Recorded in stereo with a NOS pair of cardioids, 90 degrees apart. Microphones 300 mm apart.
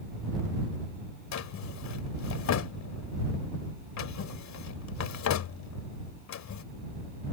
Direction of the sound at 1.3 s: 65° left.